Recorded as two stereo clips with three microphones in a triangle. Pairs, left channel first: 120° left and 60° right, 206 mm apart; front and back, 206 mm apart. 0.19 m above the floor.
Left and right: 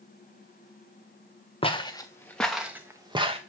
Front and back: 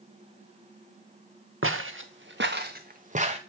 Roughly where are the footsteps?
Behind.